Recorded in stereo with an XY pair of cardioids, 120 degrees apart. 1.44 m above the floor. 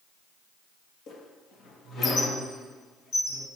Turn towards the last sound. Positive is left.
turn(degrees=60)